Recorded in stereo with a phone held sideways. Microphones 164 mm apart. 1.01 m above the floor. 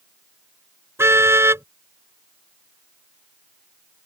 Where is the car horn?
15° right (ahead or behind).